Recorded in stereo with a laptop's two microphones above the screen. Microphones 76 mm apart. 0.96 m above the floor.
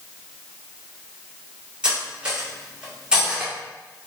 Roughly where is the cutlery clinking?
Centre.